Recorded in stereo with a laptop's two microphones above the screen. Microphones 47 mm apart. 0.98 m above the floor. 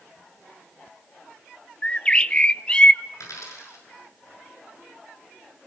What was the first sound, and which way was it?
A bird, 25° left (ahead or behind).